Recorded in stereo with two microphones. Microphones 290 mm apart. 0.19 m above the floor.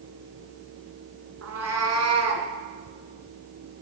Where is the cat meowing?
55° right (ahead or behind), 1.2 m; by 2.5 s 65° right (ahead or behind), 1.8 m.